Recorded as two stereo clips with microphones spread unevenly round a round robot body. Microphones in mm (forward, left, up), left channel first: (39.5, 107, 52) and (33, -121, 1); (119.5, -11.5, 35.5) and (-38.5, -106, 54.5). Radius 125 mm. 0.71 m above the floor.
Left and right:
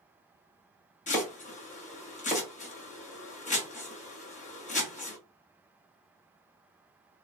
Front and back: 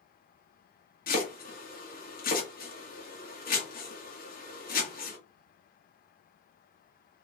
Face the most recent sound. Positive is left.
turn(degrees=25)